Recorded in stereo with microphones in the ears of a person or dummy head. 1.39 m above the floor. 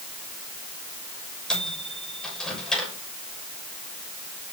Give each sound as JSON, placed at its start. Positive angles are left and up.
{"t": 1.5, "sound": "a microwave", "side_deg": 5, "distance_m": 6.0}